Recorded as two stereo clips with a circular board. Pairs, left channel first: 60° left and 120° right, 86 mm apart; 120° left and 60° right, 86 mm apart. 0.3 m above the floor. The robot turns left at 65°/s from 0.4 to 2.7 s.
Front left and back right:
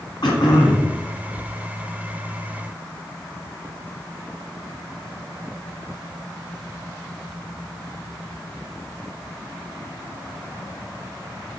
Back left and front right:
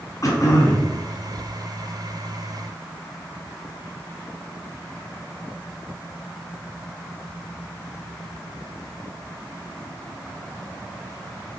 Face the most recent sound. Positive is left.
turn(degrees=-75)